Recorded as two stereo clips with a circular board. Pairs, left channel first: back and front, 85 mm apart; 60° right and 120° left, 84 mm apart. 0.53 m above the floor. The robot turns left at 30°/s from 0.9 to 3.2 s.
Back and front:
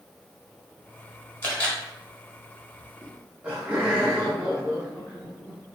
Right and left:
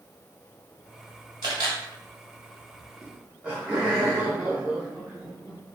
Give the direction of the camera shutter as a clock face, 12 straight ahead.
8 o'clock.